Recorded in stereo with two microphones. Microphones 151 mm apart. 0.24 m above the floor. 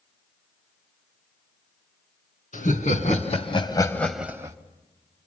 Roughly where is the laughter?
Left.